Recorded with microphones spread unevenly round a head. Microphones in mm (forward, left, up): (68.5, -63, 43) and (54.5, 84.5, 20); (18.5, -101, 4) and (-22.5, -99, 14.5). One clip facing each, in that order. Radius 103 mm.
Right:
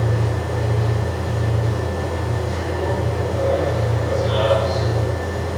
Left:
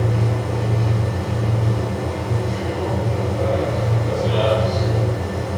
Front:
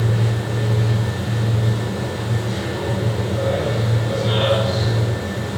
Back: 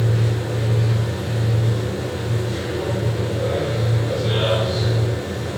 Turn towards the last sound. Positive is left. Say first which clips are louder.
# left 1 dB, even
turn(degrees=25)